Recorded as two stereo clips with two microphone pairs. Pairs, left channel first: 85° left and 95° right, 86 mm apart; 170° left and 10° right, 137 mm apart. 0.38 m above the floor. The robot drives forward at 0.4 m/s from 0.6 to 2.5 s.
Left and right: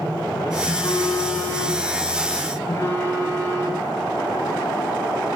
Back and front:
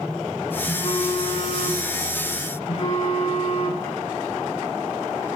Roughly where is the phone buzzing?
Behind left.